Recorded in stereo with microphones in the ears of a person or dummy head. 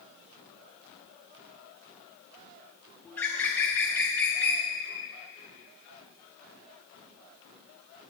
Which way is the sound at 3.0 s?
10° left (ahead or behind).